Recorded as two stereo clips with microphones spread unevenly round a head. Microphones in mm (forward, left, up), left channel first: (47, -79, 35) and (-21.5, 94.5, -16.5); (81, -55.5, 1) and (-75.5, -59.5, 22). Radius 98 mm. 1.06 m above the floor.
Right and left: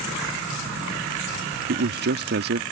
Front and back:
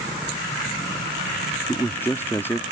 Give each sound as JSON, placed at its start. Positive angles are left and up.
{"t": 1.7, "sound": "a man speaking", "azimuth_deg": 80}